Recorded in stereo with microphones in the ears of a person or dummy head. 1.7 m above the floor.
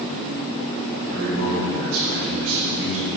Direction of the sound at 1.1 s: 65° right (ahead or behind).